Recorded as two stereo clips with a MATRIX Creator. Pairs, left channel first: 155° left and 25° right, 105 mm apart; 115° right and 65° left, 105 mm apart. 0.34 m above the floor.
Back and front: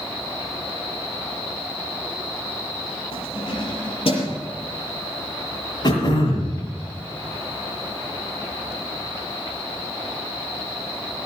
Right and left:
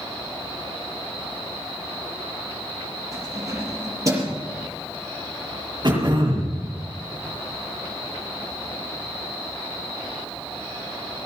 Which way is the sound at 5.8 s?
115° left.